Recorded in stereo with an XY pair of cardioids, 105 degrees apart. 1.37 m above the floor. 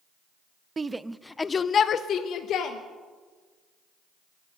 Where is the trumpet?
I don't hear a trumpet.